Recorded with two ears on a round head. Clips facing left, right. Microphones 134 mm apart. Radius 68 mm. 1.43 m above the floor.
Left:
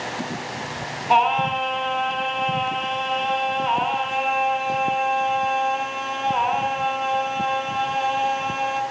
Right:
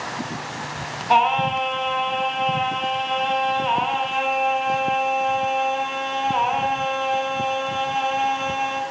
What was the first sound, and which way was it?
Singing, centre (ahead or behind).